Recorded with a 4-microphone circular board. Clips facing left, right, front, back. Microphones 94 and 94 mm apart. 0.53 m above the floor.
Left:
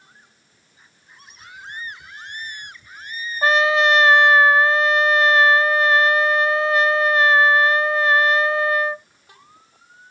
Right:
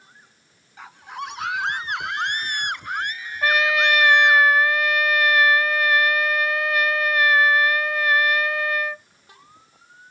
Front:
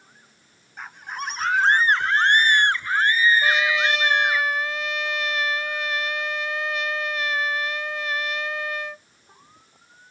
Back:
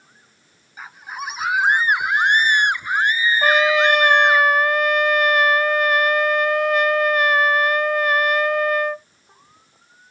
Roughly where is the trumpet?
Behind left.